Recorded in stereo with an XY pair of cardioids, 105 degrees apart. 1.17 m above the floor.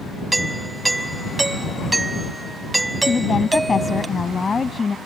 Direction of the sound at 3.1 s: 30° left.